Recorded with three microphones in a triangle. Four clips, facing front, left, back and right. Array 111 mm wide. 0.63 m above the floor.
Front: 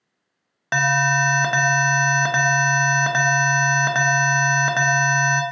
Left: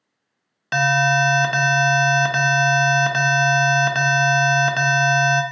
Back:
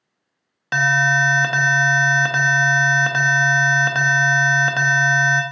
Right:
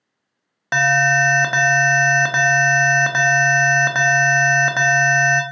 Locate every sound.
0.7 s an alarm: 65° right, 0.6 m